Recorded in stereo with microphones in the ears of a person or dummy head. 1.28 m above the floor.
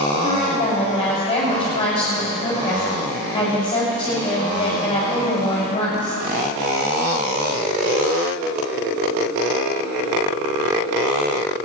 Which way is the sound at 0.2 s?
25° left (ahead or behind).